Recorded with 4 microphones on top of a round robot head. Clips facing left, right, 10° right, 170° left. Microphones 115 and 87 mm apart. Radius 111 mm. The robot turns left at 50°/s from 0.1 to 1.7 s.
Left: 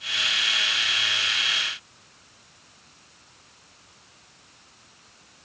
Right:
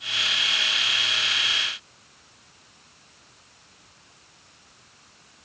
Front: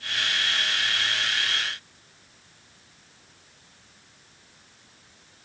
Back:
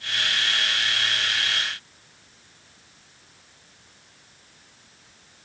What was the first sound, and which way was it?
Only background noise.